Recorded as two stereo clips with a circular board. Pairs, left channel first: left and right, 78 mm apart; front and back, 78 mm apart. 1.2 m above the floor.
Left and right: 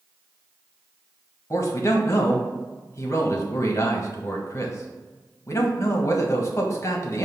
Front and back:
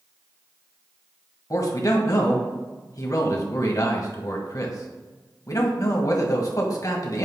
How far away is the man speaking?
About 1.3 m.